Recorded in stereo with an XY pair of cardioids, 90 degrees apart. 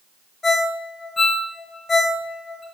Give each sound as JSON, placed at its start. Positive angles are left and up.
{"t": 0.4, "sound": "a ringtone", "azimuth_deg": 35, "distance_m": 1.6}